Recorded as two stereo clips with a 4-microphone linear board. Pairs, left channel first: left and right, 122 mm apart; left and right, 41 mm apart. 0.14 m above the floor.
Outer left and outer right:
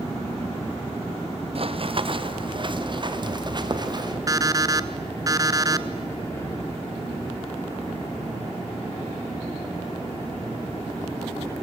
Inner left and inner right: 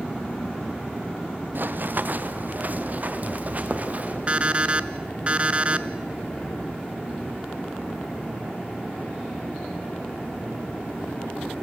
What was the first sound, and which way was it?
Running footsteps, 55° right (ahead or behind).